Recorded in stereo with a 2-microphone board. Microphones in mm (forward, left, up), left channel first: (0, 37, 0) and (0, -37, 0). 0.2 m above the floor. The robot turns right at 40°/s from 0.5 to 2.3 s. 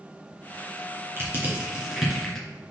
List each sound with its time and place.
1.2 s crushing: 35° right (ahead or behind), 3 m; by 2.5 s 5° left (ahead or behind), 3 m